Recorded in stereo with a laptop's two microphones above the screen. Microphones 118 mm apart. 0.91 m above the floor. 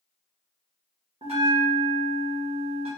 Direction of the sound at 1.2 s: 60° right (ahead or behind).